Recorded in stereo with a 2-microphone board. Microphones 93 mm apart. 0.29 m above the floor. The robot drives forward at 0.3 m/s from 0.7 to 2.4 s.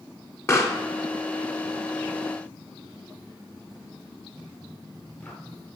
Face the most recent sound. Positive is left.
turn(degrees=20)  # may be behind; listen again after turning